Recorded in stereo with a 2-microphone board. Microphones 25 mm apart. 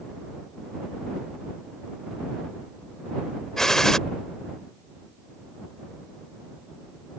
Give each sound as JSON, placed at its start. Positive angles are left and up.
{"t": 3.6, "sound": "a gunshot", "side_deg": 20}